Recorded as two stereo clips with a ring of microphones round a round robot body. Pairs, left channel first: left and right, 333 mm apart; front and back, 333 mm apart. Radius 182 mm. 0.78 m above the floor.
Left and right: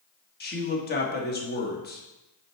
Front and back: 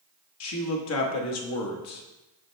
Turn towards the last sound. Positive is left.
turn(degrees=30)